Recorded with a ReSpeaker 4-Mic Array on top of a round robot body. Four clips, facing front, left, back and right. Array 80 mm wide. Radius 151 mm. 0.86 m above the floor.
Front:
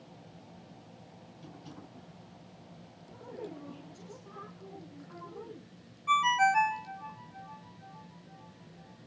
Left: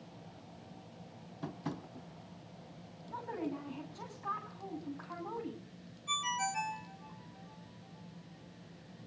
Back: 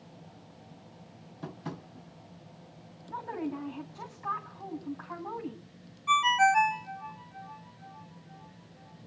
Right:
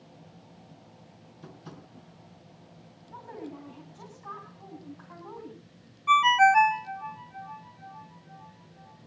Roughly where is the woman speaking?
Behind.